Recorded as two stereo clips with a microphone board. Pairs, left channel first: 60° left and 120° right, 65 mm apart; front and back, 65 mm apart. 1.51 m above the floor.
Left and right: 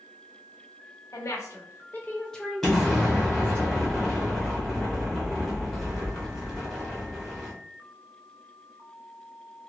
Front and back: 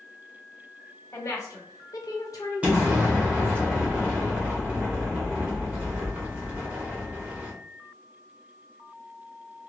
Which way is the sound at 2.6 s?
140° left.